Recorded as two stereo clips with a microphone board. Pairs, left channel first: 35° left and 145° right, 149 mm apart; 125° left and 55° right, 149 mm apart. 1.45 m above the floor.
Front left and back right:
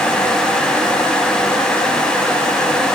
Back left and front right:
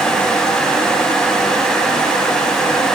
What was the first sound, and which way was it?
Only background noise.